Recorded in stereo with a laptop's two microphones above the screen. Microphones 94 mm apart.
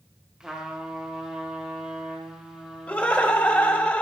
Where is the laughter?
25° left (ahead or behind), 1.0 m.